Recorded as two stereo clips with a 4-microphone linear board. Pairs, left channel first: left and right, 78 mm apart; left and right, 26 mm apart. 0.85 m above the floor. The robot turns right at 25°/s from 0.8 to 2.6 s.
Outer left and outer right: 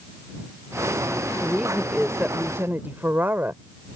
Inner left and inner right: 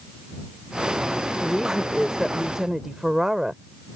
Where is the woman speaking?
5° left (ahead or behind); by 3.6 s 25° right (ahead or behind).